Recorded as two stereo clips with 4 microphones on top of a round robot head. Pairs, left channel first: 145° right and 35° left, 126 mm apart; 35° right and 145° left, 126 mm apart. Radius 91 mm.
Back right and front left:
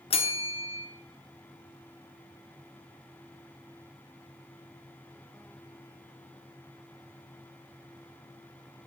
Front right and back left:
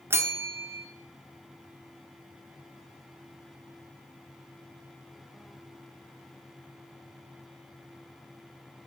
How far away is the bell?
About 1.2 m.